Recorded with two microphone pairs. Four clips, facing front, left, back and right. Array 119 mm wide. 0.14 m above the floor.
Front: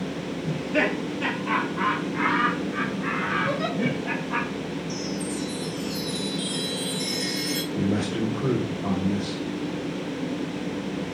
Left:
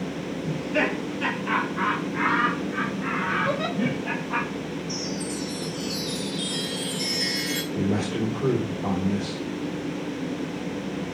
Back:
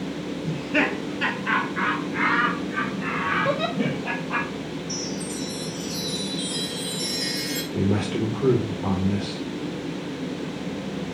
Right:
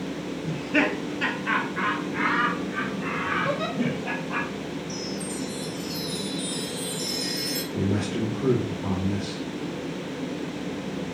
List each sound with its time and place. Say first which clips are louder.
0.5 s laughter: right 1 dB, even; 115° right, 1.1 m; by 4.5 s 160° right, 3.5 m
3.5 s a giggle: left 1 dB, back 2 dB; 175° right, 4.5 m
4.9 s a chime: left 2 dB, front 1 dB; 110° left, 1.8 m
7.7 s a man speaking: left 1 dB, back 2 dB; 175° left, 3 m